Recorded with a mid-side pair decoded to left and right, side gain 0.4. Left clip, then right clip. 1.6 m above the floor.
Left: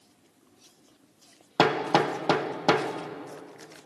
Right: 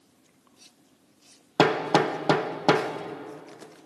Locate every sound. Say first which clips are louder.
1.6 s hammering: right 1 dB; 15° right, 1.4 m